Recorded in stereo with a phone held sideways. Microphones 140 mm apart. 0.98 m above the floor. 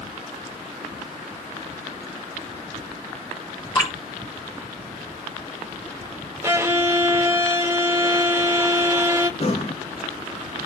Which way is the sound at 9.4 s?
45° left (ahead or behind).